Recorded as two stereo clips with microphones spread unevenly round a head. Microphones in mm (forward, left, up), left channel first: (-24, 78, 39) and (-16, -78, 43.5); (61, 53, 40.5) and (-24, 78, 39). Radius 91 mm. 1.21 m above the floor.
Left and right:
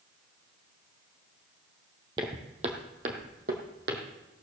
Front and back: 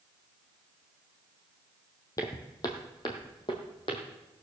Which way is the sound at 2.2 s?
40° right.